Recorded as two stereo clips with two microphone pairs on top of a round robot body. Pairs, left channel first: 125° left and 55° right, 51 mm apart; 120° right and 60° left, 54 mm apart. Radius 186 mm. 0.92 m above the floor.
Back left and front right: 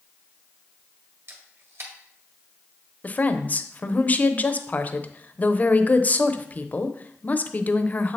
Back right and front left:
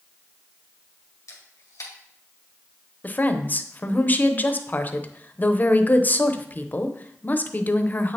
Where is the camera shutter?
95° right, 1.6 m.